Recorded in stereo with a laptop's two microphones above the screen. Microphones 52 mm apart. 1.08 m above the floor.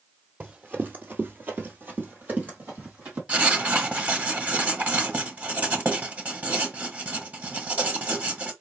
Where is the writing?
30° right (ahead or behind), 1.2 m.